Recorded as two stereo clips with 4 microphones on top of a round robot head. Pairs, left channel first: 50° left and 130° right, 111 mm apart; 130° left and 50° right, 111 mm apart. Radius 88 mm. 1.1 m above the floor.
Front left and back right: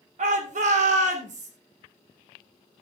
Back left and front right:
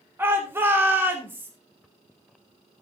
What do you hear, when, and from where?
0.2 s a shout: 120° right, 3 m